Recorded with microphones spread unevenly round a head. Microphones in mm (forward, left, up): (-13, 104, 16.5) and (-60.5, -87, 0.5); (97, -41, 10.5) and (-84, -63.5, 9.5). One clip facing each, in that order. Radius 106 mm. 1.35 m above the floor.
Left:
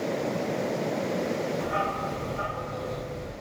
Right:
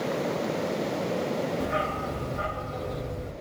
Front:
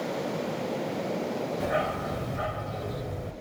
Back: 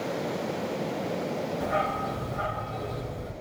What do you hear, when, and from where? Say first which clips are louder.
1.6 s a dog barking: right 1 dB, front 1 dB; 45° right, 1.5 m